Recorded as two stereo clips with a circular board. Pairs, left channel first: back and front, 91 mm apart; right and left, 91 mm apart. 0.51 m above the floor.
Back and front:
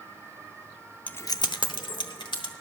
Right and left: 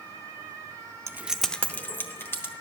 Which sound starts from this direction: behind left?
Keys jangling, at 1.1 s.